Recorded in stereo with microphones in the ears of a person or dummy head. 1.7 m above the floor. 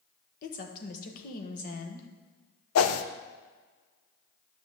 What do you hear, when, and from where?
0.4 s a woman speaking: 50° left (ahead or behind), 1.4 m
2.8 s a whoosh: 85° left, 0.7 m